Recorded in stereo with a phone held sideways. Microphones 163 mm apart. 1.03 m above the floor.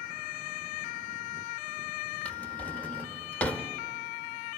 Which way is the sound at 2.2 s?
10° left (ahead or behind).